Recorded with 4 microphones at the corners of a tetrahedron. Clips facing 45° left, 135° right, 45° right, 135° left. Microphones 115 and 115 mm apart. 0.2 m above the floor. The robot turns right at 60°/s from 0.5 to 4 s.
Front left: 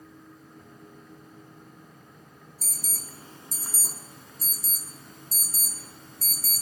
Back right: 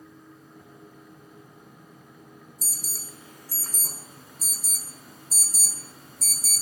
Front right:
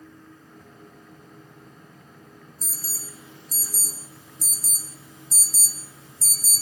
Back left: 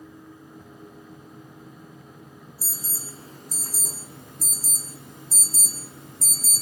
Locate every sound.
2.6 s an alarm: 55° left, 1.9 m; by 6.6 s 140° left, 1.9 m